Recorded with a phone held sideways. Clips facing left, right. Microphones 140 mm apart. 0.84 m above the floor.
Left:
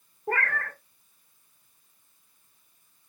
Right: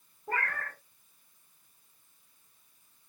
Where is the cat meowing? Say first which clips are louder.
Left 5 dB; 75° left (ahead or behind), 1.1 m.